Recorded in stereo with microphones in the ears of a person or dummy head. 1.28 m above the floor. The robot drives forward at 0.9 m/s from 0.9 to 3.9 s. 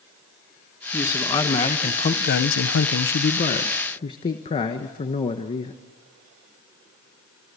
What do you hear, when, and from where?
0.9 s a man speaking: 20° left (ahead or behind), 1.7 m; by 5.8 s 25° left (ahead or behind), 1.2 m